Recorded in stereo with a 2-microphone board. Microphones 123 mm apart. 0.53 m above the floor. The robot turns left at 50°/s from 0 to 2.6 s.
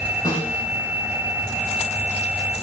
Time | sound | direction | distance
0.2 | a snare drum | 30° left (ahead or behind) | 9 m